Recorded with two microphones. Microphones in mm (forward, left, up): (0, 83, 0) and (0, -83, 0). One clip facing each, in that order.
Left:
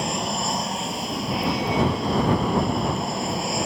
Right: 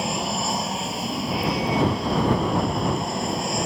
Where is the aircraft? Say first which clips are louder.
Even; centre (ahead or behind).